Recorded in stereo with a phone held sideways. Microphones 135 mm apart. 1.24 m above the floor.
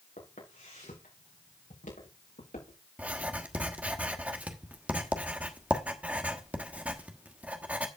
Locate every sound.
0.2 s footsteps: 75° left (ahead or behind), 5.5 m; by 2.8 s 80° left, 6.5 m
3.0 s writing: 10° right (ahead or behind), 1.2 m